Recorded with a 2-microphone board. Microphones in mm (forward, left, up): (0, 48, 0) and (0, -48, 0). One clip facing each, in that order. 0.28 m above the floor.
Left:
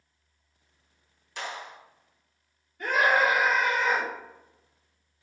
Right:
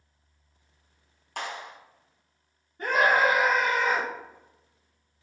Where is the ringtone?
No ringtone in this recording.